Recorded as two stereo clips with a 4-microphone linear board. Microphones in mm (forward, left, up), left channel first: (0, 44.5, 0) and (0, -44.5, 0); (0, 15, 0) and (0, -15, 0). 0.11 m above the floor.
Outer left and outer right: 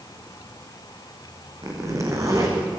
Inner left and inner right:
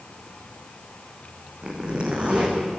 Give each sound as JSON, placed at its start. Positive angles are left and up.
{"t": 1.6, "sound": "a zipper", "side_deg": -35, "distance_m": 5.0}